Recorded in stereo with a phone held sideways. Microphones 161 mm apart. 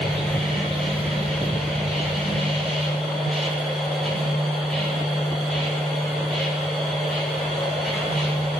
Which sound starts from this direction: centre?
A machine running, at 0.0 s.